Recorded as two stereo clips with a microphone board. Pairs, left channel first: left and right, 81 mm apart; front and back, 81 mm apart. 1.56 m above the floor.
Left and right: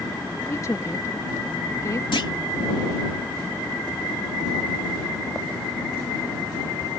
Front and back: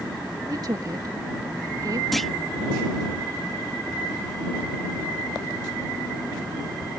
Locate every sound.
0.5 s a woman speaking: 140° left
2.1 s a clunk: 90° left